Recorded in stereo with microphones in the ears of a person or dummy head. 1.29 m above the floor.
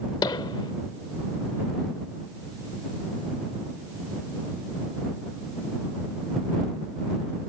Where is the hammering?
25° left (ahead or behind).